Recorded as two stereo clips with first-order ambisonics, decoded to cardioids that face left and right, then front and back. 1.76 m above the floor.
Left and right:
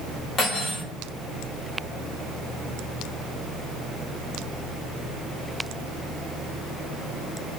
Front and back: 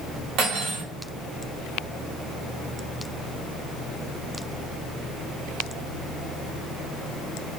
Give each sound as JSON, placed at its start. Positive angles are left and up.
{"t": 0.4, "sound": "cutlery clinking", "azimuth_deg": 150, "distance_m": 1.9}